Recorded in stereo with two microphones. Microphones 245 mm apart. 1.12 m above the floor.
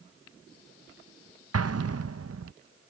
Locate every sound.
1.5 s an explosion: 75° right (ahead or behind)